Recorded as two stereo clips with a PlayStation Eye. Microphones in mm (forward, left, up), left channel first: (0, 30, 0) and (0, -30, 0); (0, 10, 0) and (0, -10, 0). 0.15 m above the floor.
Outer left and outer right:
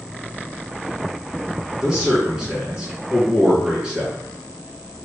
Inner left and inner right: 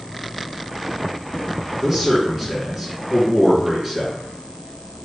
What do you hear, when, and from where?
1.8 s a man speaking: 15° right (ahead or behind), 2.0 m